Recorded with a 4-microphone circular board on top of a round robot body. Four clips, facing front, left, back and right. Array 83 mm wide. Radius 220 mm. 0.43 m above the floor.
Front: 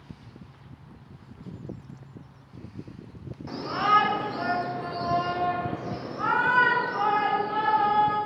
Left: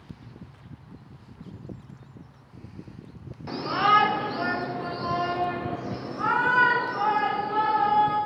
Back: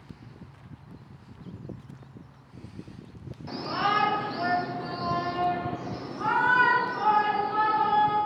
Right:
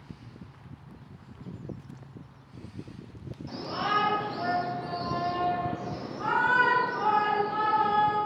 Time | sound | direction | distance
3.5 | a shout | 75° left | 2 m